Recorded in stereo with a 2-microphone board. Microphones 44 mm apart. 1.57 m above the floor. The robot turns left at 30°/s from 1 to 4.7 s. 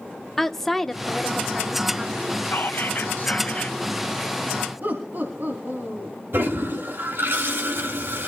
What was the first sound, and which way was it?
A woman speaking, 10° left.